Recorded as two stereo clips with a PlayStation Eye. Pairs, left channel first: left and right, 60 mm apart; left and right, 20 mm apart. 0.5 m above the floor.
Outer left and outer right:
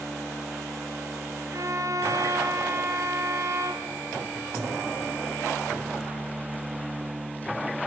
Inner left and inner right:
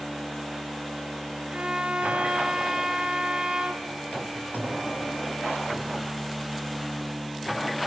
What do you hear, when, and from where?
1.5 s a violin: 60° right (ahead or behind), 2 m